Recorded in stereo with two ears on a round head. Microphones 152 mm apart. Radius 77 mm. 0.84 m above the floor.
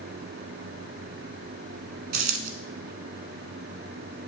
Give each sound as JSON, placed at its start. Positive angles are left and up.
{"t": 2.1, "sound": "a dropped coin", "side_deg": -55, "distance_m": 1.2}